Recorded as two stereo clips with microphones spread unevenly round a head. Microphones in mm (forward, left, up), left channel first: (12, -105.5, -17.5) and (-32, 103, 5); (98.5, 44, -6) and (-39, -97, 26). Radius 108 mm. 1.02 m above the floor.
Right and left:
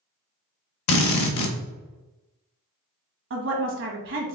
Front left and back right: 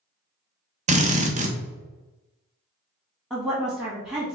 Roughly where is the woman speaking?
Behind left.